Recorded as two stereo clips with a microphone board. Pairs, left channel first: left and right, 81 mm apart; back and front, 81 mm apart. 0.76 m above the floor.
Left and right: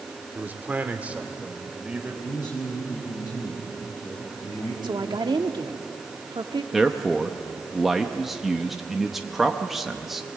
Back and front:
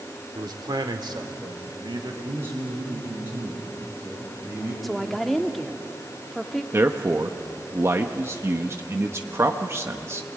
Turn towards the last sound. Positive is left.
turn(degrees=-5)